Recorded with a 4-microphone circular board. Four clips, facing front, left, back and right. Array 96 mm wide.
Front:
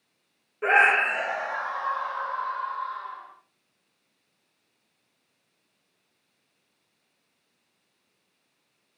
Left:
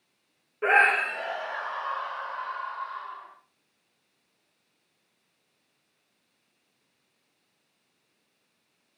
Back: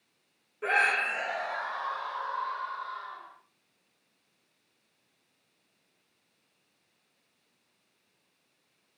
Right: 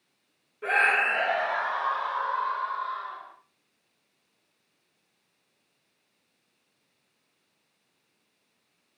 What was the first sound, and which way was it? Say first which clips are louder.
A scream: left 2 dB, front 7 dB; 55° left.